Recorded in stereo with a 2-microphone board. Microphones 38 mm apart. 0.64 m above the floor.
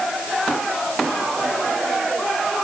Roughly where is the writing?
I don't hear writing.